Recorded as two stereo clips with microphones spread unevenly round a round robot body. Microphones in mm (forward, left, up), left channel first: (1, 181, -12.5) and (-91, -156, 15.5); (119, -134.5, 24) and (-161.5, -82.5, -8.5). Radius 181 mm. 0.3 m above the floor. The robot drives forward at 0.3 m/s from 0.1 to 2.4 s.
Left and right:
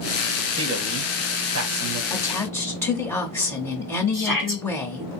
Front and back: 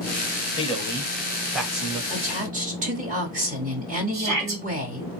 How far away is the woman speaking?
About 1.0 m.